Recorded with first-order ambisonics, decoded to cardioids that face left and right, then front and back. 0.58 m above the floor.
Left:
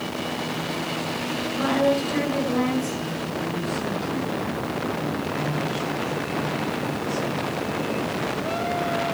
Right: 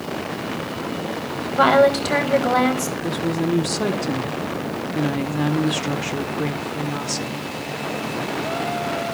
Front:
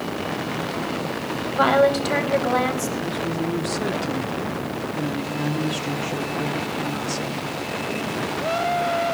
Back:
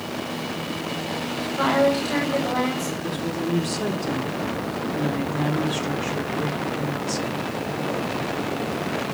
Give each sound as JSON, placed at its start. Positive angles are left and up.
{"t": 1.5, "sound": "a woman speaking", "azimuth_deg": -65, "distance_m": 4.0}
{"t": 3.0, "sound": "a woman speaking", "azimuth_deg": -95, "distance_m": 1.5}